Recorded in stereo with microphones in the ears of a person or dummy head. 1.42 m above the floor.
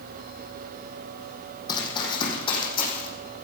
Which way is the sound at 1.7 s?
25° left (ahead or behind).